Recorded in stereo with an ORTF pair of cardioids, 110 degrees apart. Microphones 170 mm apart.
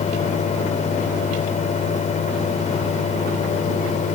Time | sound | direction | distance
0.0 | a fan | 45° left | ?